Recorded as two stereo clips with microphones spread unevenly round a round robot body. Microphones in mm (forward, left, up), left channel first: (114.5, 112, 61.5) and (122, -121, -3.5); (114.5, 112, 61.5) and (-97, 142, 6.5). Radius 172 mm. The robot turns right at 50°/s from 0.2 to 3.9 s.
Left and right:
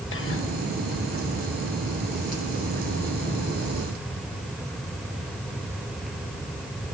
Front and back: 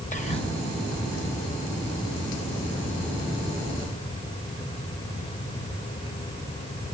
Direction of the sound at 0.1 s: 55° left.